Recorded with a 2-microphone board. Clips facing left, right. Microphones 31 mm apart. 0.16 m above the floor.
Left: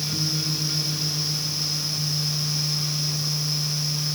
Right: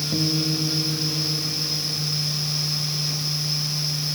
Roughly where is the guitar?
Right.